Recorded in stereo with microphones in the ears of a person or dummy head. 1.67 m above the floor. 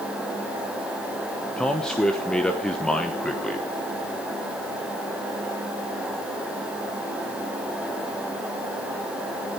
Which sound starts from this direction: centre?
A man speaking, at 1.6 s.